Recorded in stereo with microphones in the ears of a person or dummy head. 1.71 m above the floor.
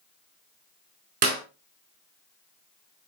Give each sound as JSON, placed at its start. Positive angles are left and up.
{"t": 1.2, "sound": "a clap", "side_deg": -40, "distance_m": 3.5}